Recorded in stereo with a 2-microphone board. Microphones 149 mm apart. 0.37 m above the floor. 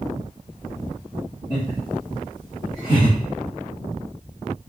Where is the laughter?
40° left (ahead or behind), 1.9 m; by 3.2 s 35° left (ahead or behind), 1.1 m.